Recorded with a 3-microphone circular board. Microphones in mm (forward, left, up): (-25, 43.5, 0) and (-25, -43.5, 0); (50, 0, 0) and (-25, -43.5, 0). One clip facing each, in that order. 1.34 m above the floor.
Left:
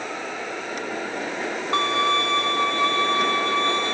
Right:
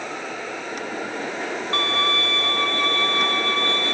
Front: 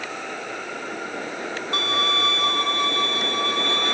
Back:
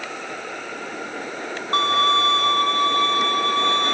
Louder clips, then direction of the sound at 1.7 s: Left 4 dB, back 7 dB; 160° left.